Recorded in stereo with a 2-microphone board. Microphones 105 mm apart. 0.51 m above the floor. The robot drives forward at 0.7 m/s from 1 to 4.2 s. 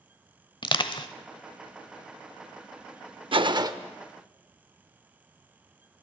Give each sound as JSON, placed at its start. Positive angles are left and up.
{"t": 0.6, "sound": "crushing", "side_deg": 45, "distance_m": 0.9}
{"t": 3.3, "sound": "a gunshot", "side_deg": -55, "distance_m": 0.5}